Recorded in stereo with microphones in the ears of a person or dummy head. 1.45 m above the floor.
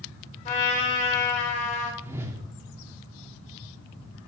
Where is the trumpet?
40° left (ahead or behind), 3.5 m.